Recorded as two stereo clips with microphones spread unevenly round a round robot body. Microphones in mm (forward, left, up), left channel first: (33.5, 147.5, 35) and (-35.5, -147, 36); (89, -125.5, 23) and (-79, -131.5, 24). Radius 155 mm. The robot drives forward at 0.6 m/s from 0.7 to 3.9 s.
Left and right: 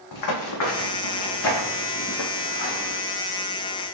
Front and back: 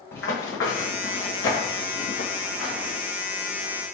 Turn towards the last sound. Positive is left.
turn(degrees=55)